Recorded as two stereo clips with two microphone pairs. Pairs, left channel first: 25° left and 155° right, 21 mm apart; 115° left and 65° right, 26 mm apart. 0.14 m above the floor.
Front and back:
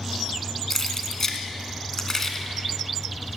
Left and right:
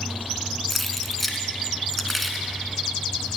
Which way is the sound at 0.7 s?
30° left.